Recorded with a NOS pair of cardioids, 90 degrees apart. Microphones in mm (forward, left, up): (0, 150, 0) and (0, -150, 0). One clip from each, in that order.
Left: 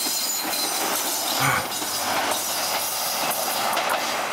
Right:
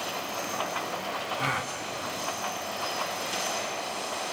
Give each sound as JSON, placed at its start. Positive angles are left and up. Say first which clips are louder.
{"t": 1.4, "sound": "a gasp", "louder": "left 8 dB", "azimuth_deg": 30, "distance_m": 0.7}